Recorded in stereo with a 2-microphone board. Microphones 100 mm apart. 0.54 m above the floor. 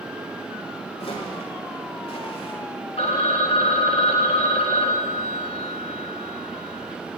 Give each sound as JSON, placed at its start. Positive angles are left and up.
{"t": 1.0, "sound": "footsteps", "side_deg": 75, "distance_m": 7.0}
{"t": 3.0, "sound": "a phone ringing", "side_deg": 80, "distance_m": 1.4}